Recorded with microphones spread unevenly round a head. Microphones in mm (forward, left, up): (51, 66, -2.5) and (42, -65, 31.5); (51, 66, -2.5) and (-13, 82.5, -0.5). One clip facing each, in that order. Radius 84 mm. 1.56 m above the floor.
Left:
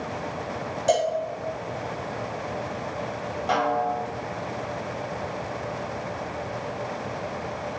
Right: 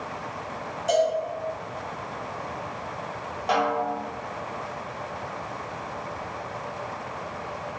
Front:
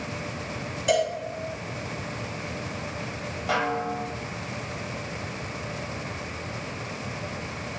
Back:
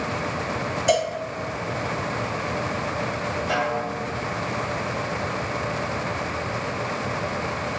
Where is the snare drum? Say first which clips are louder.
Even, front 1 dB; 25° right, 1.5 m.